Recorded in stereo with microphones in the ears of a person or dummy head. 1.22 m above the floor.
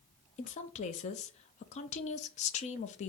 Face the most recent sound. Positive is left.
turn(degrees=40)  # may be behind; listen again after turning